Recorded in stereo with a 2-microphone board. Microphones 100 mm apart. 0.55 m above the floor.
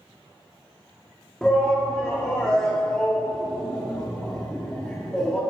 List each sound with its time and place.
1.4 s a shout: 10° left (ahead or behind), 0.8 m